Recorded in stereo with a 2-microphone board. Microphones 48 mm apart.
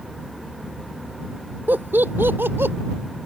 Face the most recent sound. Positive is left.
turn(degrees=-55)  # may be behind; listen again after turning